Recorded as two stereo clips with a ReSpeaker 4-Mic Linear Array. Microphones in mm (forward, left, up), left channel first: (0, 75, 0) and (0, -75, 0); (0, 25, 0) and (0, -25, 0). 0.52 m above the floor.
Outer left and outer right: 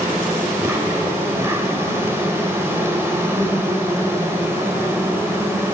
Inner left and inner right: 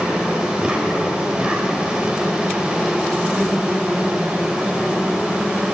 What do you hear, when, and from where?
0.0 s an insect: 20° right (ahead or behind), 1.5 m